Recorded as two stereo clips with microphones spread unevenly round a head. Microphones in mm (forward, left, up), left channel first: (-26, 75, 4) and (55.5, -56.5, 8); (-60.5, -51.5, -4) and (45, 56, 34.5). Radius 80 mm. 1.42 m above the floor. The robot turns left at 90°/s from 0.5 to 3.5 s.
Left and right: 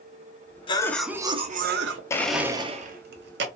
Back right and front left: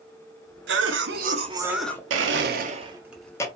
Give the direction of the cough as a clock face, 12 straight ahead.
10 o'clock.